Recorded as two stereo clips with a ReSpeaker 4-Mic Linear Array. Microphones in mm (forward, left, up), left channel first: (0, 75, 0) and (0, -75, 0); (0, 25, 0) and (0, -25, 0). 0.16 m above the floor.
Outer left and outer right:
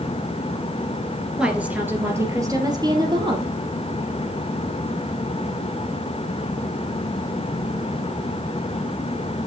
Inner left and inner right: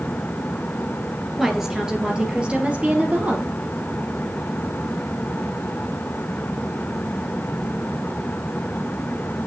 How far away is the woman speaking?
About 2.5 m.